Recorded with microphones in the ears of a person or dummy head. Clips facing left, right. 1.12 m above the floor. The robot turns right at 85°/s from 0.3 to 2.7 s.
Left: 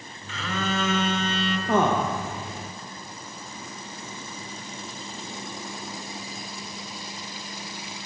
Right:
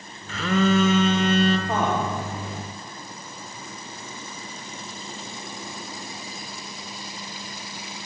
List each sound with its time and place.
0.3 s a phone buzzing: 135° right, 0.7 m; by 1.6 s 30° right, 0.7 m
1.7 s a man speaking: 105° left, 1.1 m; by 2.1 s 145° left, 1.1 m